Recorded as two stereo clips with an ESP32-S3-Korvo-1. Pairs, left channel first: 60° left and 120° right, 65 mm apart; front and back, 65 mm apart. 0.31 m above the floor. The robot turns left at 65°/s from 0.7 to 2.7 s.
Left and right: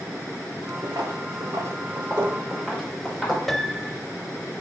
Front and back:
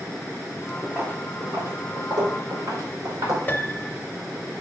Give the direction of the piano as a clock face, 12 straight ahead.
1 o'clock.